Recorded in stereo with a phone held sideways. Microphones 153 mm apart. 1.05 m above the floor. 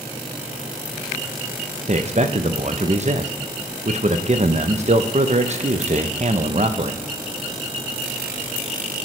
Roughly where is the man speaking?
Right.